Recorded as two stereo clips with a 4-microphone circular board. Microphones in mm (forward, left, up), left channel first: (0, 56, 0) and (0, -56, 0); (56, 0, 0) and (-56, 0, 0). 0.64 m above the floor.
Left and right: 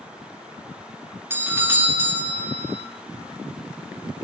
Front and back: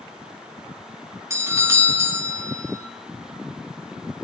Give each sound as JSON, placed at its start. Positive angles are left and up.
{"t": 1.3, "sound": "a doorbell", "azimuth_deg": -140, "distance_m": 1.0}